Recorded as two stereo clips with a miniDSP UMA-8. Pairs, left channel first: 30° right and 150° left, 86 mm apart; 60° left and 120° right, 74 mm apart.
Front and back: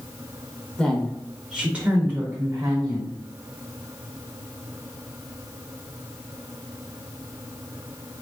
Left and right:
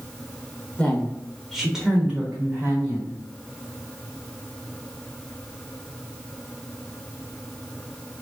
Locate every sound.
0.8 s a woman speaking: 30° left, 1.0 m; by 3.2 s 165° right, 1.6 m